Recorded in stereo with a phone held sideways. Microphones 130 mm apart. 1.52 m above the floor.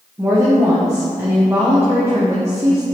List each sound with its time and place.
0.2 s a woman speaking: 20° right (ahead or behind), 1.1 m